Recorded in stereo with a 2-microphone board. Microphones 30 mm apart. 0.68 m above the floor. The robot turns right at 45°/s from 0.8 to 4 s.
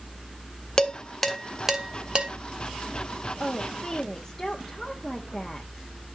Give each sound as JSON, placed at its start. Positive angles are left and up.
{"t": 0.8, "sound": "dishes clattering", "side_deg": 25, "distance_m": 1.3}
{"t": 3.4, "sound": "a woman speaking", "side_deg": 35, "distance_m": 1.2}